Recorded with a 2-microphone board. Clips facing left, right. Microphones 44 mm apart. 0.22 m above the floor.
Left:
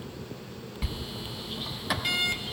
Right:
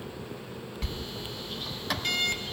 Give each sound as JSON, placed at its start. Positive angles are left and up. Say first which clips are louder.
{"t": 0.8, "sound": "a sliding door", "louder": "left 1 dB", "side_deg": 5, "distance_m": 1.1}